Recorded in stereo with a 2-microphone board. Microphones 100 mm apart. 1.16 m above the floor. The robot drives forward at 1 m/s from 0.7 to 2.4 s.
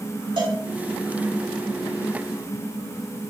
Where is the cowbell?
50° right (ahead or behind), 2.5 m.